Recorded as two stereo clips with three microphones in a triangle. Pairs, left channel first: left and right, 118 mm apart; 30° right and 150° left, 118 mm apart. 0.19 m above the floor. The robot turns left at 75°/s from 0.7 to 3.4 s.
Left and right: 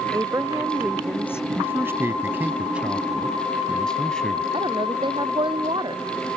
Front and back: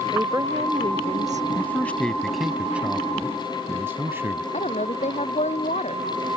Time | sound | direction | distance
0.1 | a woman speaking | 155° right | ?
1.6 | a man speaking | 60° right | ?
4.5 | a woman speaking | 45° right | ?